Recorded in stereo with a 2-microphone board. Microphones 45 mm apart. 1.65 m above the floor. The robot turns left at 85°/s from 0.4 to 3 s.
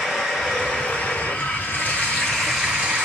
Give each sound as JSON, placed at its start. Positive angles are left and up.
{"t": 0.0, "sound": "running water", "azimuth_deg": 175, "distance_m": 1.1}